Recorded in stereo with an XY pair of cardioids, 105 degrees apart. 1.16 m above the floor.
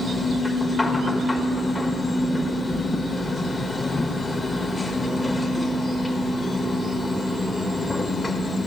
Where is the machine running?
20° left, 1.2 m.